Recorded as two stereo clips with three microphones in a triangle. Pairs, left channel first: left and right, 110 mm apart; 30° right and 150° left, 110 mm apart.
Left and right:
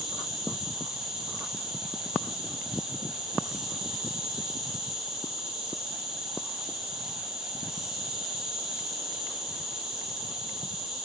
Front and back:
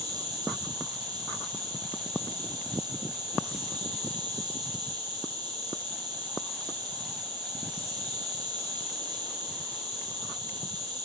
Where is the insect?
175° right, 2.0 m.